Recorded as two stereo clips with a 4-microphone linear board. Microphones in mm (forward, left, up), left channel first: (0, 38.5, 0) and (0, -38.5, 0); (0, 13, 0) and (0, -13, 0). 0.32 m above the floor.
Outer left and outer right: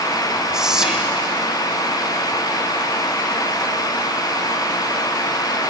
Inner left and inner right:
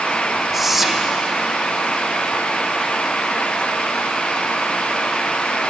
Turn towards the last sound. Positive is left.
turn(degrees=-10)  # may be behind; listen again after turning